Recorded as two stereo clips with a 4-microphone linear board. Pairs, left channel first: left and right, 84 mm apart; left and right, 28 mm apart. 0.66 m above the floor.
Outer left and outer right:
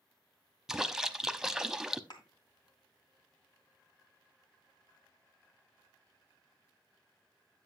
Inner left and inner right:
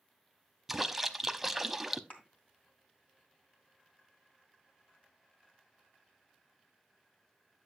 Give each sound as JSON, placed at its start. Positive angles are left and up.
{"t": 0.7, "sound": "a splash", "side_deg": -5, "distance_m": 0.7}
{"t": 2.1, "sound": "a thud", "side_deg": 55, "distance_m": 2.5}